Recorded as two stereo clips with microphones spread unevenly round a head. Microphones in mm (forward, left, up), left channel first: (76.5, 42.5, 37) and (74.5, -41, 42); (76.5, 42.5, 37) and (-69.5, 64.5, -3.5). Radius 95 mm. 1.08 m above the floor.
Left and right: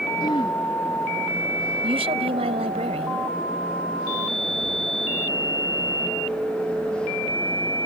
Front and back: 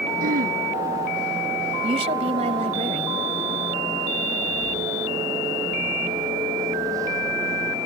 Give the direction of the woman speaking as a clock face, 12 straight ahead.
4 o'clock.